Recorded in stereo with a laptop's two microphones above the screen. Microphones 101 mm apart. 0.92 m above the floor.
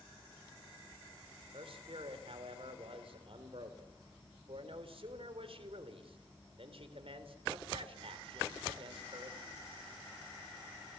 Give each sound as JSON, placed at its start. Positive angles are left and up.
{"t": 1.5, "sound": "a man speaking", "side_deg": -65, "distance_m": 3.0}